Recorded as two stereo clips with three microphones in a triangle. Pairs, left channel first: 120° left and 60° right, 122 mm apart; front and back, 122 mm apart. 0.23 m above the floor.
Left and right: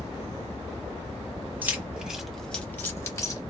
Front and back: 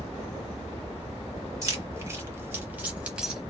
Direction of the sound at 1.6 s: 125° right.